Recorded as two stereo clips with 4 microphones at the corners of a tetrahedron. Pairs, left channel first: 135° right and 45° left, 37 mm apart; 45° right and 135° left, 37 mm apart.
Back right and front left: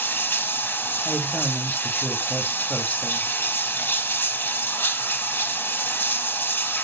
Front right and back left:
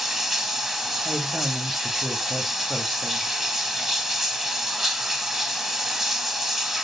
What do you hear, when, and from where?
0.0 s running water: 140° right, 0.9 m
1.1 s a woman speaking: 135° right, 1.0 m